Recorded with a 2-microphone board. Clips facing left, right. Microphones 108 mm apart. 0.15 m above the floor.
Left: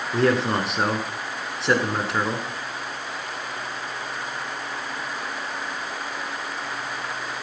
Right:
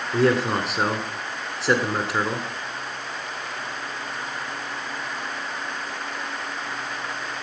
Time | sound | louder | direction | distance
0.1 | a man speaking | right 1 dB | centre (ahead or behind) | 1.4 m